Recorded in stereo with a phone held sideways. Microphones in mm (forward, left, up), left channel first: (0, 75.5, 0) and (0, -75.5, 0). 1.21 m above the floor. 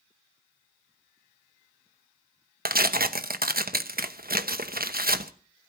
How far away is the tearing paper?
About 0.9 m.